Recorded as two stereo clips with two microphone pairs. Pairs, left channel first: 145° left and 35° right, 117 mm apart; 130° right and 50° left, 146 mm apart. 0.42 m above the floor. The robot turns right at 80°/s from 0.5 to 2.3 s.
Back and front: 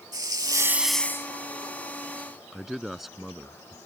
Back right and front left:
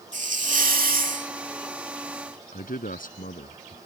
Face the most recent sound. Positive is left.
turn(degrees=-120)